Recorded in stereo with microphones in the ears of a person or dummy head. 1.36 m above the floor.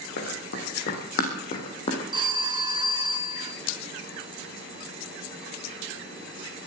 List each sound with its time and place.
0.2 s running footsteps: 60° left (ahead or behind), 4.5 m; by 2.0 s 35° left (ahead or behind), 3 m
2.1 s a phone ringing: 20° right (ahead or behind), 1.1 m